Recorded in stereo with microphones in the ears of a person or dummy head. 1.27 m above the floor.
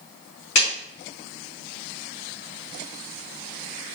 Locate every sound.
0.6 s a clap: 60° left (ahead or behind), 2 m